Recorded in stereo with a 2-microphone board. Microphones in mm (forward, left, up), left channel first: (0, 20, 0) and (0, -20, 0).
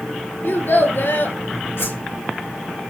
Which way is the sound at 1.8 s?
70° left (ahead or behind).